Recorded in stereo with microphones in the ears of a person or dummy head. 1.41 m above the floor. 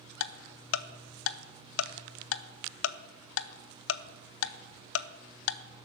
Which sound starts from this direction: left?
Ticking, at 0.2 s.